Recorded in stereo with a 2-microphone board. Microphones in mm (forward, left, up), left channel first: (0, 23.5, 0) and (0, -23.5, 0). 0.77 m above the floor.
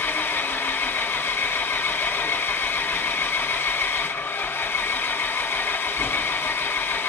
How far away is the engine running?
About 1.3 m.